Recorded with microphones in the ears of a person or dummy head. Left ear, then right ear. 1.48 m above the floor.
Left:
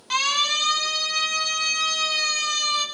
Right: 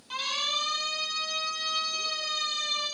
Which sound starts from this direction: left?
A siren, at 0.1 s.